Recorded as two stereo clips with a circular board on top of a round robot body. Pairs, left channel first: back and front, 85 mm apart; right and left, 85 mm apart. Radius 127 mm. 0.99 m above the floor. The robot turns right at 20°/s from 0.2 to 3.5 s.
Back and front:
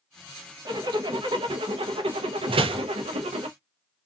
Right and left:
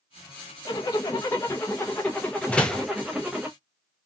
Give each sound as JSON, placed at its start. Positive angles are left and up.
{"t": 0.7, "sound": "a zipper", "azimuth_deg": -45, "distance_m": 0.6}
{"t": 2.5, "sound": "a door slam", "azimuth_deg": -15, "distance_m": 0.5}